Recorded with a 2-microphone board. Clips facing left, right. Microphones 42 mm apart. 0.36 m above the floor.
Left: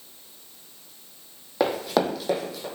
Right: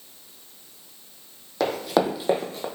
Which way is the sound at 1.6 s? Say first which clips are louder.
Right 1 dB; 10° left (ahead or behind).